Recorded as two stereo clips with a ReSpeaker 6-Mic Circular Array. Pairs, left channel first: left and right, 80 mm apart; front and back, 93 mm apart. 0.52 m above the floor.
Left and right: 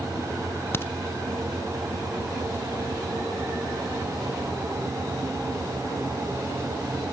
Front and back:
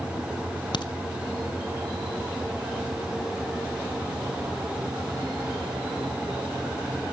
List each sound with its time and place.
0.7 s a crack: 30° left, 1.0 m